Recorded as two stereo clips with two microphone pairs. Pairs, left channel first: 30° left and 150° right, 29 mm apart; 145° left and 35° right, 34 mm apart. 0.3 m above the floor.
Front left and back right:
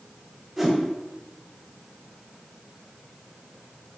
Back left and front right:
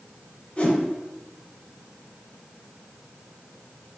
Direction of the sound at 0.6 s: 120° left.